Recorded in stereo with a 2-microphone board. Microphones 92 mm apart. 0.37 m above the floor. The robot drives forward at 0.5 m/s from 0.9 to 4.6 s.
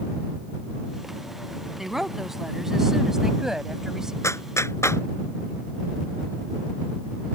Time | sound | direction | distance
1.8 | a woman speaking | 5° right (ahead or behind) | ?
4.2 | a clap | 30° left (ahead or behind) | ?